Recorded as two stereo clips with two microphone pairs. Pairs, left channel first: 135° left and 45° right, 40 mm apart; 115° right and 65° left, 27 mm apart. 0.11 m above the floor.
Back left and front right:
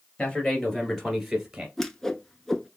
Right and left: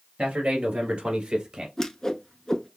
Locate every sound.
0.2 s a man speaking: 75° left, 2.5 m; by 1.7 s 20° left, 2 m
1.8 s a whoosh: 150° right, 0.6 m